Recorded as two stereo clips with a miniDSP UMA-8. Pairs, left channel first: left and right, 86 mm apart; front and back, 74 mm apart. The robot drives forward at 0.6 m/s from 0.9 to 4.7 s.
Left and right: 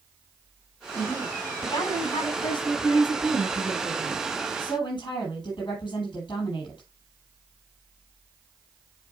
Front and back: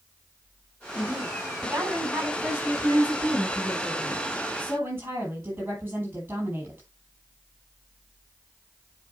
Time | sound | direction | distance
0.9 | a woman speaking | 110° left | 10 m